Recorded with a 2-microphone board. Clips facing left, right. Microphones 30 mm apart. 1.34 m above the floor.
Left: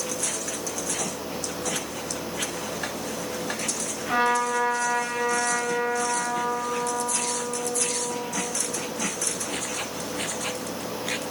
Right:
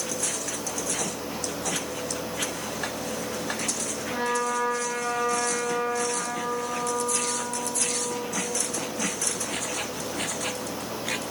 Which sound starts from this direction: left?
A trumpet, at 4.1 s.